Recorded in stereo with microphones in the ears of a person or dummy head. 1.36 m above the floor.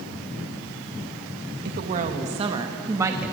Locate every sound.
1.6 s a woman speaking: 50° right (ahead or behind), 2 m; by 3.3 s 10° right (ahead or behind), 2.5 m